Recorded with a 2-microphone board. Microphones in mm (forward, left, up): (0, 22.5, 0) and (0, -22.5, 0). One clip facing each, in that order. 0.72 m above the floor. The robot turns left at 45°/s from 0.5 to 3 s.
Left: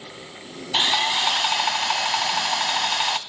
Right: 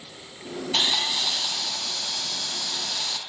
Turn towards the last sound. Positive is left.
turn(degrees=55)